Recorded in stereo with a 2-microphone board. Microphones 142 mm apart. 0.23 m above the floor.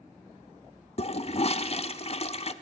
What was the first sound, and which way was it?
A toilet flushing, 45° left (ahead or behind).